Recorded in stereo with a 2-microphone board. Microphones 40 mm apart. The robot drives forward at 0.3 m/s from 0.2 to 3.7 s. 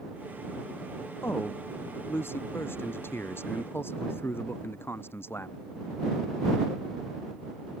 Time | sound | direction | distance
1.2 | a man speaking | 70° left (ahead or behind) | ?